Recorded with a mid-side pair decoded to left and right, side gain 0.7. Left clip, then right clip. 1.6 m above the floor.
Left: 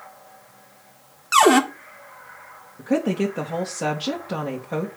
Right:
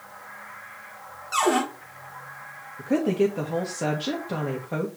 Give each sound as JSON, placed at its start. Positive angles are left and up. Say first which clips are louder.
{"t": 1.3, "sound": "a cupboard door", "louder": "left 8 dB", "azimuth_deg": 45, "distance_m": 1.6}
{"t": 2.8, "sound": "a woman speaking", "louder": "even", "azimuth_deg": 10, "distance_m": 1.8}